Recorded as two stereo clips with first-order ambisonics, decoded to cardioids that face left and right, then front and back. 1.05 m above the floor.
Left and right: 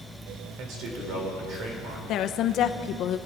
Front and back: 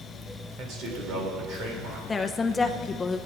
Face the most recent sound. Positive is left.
turn(degrees=70)